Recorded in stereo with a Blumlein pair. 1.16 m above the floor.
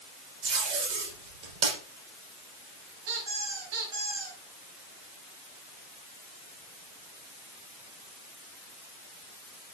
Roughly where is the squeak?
Ahead right.